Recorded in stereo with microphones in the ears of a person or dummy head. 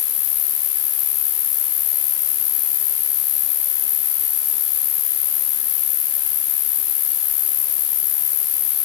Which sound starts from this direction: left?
An insect, at 0.0 s.